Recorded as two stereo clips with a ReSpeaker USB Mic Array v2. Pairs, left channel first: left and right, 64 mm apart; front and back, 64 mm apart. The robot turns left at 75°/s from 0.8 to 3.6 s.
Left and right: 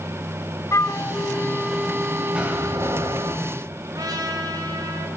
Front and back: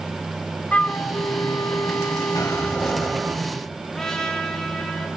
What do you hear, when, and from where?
0.7 s a flute: 65° left, 0.5 m; by 3.4 s 125° right, 0.5 m
2.4 s a door slam: 15° right, 3.5 m; by 3.3 s 90° right, 3.5 m
3.9 s a trumpet: 85° right, 3 m